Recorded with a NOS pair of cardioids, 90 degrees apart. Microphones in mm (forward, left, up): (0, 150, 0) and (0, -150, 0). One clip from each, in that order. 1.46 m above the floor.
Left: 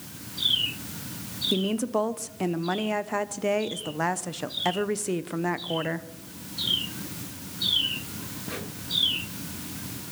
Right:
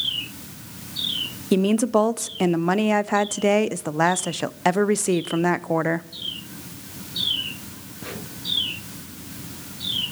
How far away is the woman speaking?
About 0.7 m.